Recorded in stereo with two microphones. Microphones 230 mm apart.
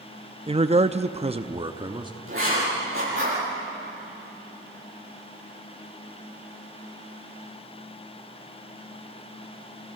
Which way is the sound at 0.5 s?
25° right (ahead or behind).